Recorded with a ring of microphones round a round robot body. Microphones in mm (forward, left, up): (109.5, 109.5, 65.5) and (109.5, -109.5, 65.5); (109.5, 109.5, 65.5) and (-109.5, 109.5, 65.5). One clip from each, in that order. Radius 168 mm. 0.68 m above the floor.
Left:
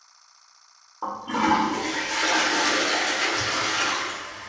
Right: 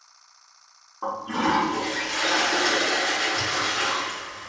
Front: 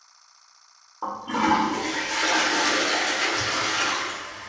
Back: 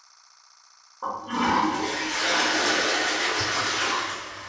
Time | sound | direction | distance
1.0 | a toilet flushing | 15° left | 1.3 m